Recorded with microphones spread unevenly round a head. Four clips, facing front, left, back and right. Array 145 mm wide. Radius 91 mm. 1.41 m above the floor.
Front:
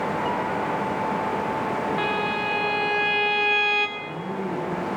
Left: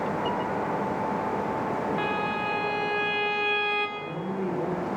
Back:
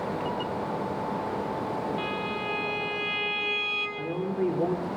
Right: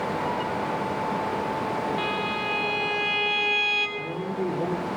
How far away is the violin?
About 3 m.